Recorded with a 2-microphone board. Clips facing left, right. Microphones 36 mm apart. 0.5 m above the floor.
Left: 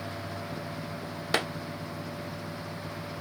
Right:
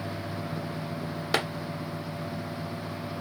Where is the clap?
5° right (ahead or behind), 1.2 m.